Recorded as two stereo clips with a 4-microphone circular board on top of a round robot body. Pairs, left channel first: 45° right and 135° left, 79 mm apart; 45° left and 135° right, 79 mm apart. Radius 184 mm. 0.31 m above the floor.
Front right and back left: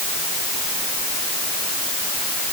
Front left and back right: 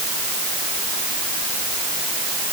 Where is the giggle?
I don't hear a giggle.